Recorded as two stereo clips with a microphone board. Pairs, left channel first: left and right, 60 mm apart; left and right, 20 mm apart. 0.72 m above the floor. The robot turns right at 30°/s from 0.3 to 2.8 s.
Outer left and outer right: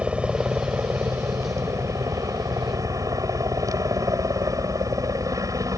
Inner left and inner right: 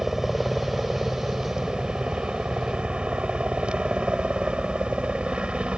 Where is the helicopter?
160° right; by 5.8 s 85° right.